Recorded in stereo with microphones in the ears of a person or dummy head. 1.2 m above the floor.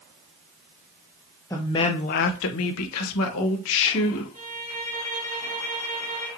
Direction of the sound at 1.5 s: 5° left (ahead or behind).